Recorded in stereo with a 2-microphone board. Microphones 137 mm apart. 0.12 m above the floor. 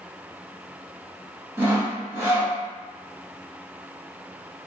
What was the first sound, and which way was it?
Sawing, 20° right (ahead or behind).